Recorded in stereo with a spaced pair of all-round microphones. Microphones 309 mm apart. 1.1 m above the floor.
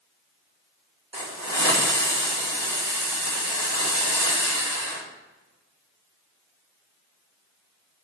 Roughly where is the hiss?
Right.